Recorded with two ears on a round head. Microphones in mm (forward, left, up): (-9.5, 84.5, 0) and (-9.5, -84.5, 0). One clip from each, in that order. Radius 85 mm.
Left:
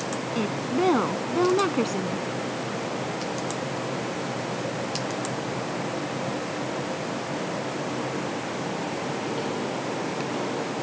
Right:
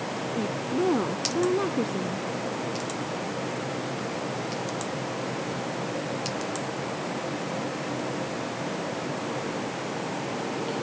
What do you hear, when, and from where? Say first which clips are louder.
0.3 s a woman speaking: left 3 dB; 65° left (ahead or behind); by 2.2 s 55° left (ahead or behind)